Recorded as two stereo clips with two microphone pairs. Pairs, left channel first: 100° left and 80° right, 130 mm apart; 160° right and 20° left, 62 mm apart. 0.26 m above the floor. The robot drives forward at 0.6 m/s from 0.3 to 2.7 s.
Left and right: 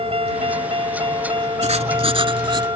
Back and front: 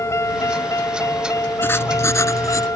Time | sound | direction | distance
0.0 | a vehicle | 120° right | ?
1.6 | writing | 110° right | ?